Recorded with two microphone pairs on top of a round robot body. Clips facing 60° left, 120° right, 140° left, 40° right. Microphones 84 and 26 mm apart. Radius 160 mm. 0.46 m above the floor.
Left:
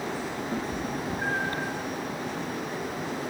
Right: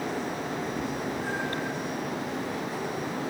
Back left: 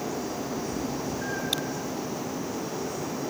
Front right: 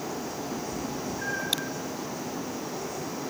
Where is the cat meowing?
35° left, 7 m.